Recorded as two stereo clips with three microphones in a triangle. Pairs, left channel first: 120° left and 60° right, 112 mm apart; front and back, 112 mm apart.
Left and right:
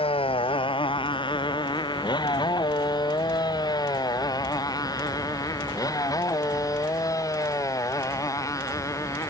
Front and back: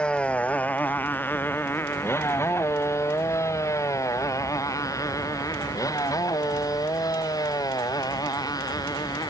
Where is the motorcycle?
80° left; by 9.3 s 55° left.